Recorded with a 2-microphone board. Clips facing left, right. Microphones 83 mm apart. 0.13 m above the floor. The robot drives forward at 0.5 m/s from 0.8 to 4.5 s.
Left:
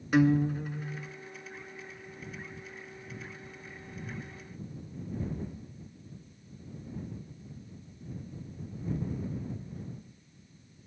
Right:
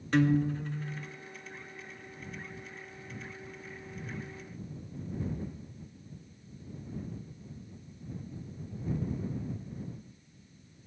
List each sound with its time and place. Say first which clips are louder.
0.1 s a guitar: left 2 dB; 10° left (ahead or behind), 0.6 m